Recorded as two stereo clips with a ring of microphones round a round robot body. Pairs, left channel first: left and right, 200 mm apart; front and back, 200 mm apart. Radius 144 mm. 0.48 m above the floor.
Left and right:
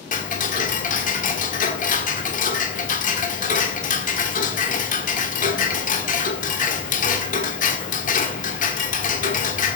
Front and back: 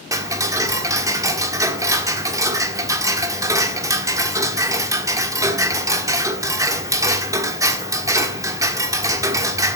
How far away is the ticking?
About 1.5 m.